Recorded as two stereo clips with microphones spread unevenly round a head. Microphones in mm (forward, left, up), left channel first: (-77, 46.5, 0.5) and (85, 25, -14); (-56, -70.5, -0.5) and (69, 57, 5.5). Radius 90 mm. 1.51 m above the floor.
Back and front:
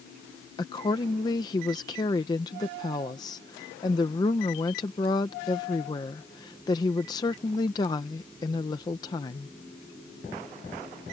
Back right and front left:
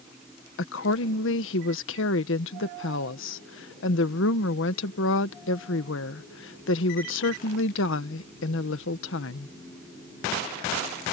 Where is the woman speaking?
115° right.